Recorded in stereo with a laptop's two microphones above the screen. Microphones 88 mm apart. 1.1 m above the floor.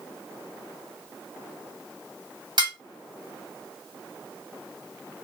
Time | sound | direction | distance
2.6 | dishes clattering | 60° right (ahead or behind) | 1.3 m